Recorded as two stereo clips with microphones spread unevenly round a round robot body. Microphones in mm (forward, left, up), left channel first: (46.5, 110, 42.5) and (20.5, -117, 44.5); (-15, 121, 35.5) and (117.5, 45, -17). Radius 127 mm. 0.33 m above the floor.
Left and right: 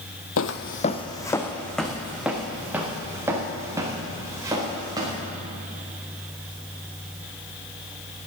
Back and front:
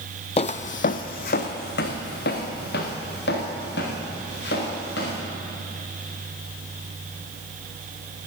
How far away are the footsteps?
About 0.6 m.